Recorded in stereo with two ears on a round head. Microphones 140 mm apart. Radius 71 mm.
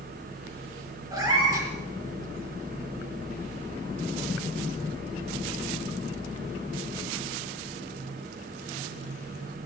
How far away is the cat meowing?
About 4.5 m.